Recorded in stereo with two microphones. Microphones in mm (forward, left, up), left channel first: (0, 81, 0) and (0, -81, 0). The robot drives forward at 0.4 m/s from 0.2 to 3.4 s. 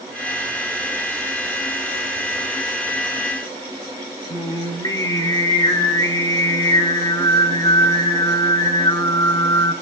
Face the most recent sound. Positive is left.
turn(degrees=25)  # may be behind; listen again after turning